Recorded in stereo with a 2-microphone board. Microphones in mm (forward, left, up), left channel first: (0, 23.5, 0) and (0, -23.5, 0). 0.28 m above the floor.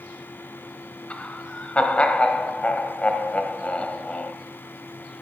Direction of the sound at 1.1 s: 25° left (ahead or behind).